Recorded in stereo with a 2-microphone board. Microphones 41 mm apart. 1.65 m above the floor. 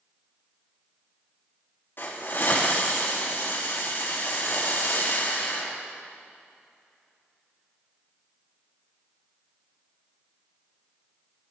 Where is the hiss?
55° left (ahead or behind), 3.5 m.